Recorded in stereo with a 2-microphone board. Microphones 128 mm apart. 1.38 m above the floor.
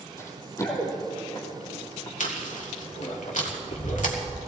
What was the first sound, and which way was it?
Running footsteps, 20° left (ahead or behind).